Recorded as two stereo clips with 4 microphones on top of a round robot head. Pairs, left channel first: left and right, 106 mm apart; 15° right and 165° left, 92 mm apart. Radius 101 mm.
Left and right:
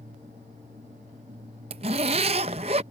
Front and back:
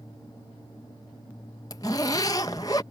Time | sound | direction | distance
1.7 | a zipper | 75° right | ?